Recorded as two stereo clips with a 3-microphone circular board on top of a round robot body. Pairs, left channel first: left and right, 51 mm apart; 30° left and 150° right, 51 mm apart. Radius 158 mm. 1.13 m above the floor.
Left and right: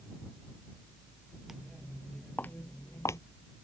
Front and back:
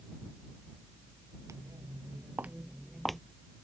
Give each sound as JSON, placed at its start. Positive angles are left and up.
{"t": 1.5, "sound": "footsteps", "azimuth_deg": -175}